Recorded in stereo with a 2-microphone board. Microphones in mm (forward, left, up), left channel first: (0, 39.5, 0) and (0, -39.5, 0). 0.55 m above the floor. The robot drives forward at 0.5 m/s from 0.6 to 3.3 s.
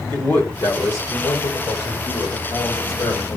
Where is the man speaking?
60° left (ahead or behind), 2.5 m; by 3.4 s 55° left (ahead or behind), 2.5 m.